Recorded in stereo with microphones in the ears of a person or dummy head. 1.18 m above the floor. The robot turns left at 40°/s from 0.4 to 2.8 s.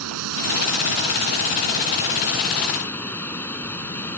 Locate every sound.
0.0 s running water: 95° right; by 4.2 s 170° left